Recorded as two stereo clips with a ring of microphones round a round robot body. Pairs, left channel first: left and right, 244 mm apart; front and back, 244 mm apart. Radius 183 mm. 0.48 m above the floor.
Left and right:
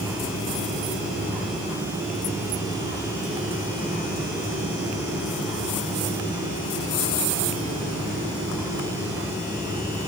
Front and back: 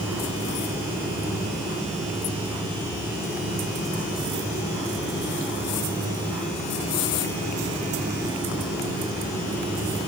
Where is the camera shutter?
I don't hear a camera shutter.